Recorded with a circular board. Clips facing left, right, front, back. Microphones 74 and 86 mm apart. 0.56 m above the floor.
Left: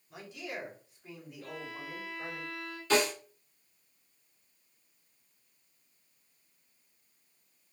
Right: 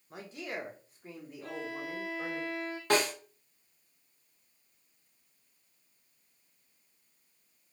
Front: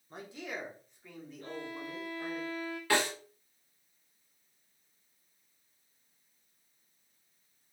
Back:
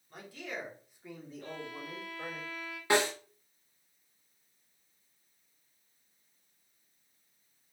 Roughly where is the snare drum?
Behind right.